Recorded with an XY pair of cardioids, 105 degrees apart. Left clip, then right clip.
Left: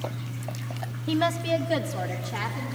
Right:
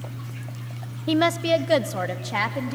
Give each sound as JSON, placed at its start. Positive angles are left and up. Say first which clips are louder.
{"t": 1.1, "sound": "a woman speaking", "louder": "right 4 dB", "azimuth_deg": -35, "distance_m": 0.8}